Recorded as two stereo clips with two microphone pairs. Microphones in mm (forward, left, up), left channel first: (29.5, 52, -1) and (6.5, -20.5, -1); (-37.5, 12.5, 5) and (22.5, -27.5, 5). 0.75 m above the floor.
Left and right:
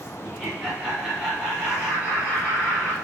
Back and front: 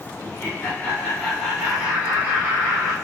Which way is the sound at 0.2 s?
165° left.